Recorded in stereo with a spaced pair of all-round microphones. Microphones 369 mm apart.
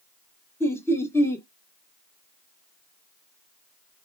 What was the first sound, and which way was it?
Laughter, 5° left (ahead or behind).